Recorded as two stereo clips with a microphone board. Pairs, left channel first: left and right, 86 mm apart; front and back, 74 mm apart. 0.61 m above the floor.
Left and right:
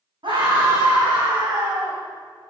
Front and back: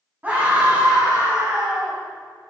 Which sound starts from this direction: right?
A scream, at 0.2 s.